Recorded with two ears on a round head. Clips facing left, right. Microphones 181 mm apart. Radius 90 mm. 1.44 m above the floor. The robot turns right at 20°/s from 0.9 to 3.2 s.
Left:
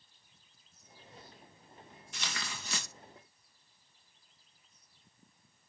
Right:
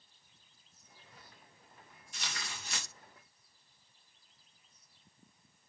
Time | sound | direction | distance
2.1 | tearing paper | 55° left (ahead or behind) | 2.0 m